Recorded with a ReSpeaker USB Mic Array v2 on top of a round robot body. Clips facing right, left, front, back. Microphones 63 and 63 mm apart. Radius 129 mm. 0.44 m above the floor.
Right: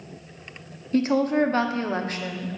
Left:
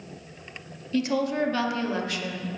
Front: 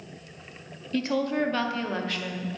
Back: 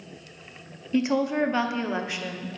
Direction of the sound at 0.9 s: 115° right.